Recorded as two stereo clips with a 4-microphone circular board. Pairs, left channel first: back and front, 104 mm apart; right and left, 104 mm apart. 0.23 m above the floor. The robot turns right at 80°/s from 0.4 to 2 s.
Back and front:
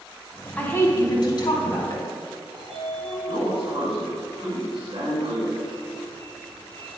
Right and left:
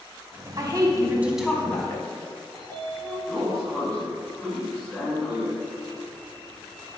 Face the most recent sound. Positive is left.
turn(degrees=-5)